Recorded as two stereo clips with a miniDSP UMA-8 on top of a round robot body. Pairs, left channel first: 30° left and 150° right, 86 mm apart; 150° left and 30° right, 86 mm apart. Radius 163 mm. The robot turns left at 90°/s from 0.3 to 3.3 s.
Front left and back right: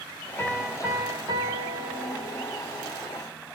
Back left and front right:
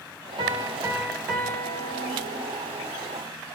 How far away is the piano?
About 3 m.